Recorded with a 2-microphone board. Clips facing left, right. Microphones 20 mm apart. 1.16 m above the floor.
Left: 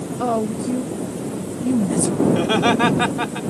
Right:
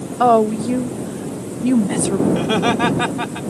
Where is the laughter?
5° left (ahead or behind).